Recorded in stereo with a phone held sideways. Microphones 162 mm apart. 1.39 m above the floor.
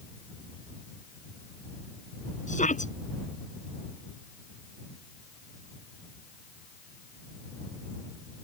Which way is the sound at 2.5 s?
50° left (ahead or behind).